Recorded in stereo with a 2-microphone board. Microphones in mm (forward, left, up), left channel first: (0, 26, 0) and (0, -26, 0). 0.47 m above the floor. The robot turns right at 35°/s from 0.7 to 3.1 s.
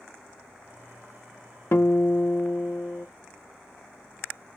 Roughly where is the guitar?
Left.